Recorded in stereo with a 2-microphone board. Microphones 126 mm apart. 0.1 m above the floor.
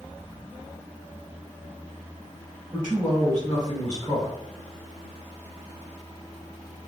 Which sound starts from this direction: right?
A man speaking, at 2.7 s.